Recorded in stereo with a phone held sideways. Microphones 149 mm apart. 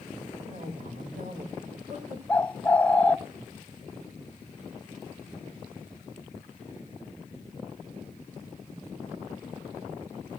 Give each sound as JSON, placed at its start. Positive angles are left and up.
{"t": 0.5, "sound": "a woman speaking", "side_deg": -60, "distance_m": 5.0}
{"t": 2.3, "sound": "a bird", "side_deg": 10, "distance_m": 0.6}